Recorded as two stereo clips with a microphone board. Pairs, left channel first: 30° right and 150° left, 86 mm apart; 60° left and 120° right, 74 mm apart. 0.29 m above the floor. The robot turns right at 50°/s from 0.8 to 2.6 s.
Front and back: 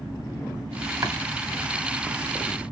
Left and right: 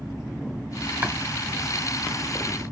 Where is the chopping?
Straight behind, 2.0 m; by 1.2 s 175° right, 2.0 m.